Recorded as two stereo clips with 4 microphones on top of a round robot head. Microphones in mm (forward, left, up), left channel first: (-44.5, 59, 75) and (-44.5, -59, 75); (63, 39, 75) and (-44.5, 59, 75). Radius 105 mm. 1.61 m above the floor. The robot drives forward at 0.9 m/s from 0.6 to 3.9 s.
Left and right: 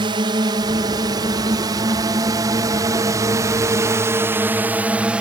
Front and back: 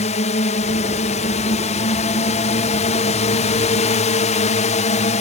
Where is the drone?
35° right; by 5.2 s 5° right.